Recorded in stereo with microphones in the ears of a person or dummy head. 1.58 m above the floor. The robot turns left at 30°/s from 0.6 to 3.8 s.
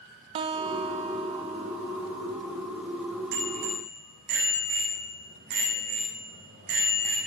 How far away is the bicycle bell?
About 8.5 m.